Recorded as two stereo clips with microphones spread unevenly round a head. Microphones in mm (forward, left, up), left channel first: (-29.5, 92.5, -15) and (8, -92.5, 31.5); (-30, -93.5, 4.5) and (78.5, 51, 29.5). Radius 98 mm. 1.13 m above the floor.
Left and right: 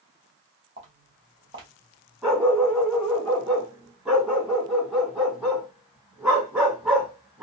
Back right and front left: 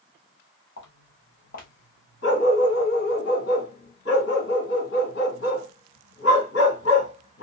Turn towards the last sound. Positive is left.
turn(degrees=-155)